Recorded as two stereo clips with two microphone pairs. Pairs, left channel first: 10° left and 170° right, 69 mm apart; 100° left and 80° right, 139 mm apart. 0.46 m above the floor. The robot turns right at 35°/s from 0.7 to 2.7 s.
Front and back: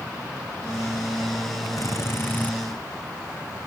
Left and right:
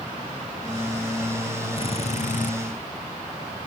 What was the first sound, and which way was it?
A drill, 55° left.